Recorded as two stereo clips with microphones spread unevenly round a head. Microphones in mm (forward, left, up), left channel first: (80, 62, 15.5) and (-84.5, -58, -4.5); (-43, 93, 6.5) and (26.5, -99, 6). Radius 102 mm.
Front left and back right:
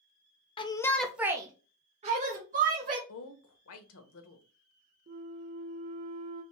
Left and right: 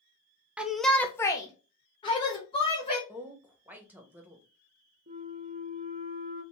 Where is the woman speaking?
10° left, 0.9 m.